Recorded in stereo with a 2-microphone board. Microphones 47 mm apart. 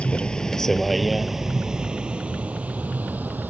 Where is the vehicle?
25° left (ahead or behind); by 3.5 s 40° right (ahead or behind).